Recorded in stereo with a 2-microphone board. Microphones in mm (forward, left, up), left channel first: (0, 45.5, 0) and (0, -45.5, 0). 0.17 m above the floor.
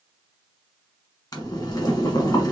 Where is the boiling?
45° left (ahead or behind), 1.3 m.